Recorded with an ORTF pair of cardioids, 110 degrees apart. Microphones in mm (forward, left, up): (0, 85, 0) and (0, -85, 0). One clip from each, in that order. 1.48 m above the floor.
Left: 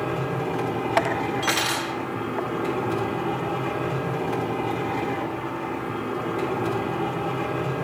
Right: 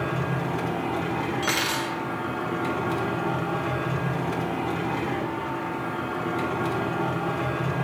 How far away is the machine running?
About 3 m.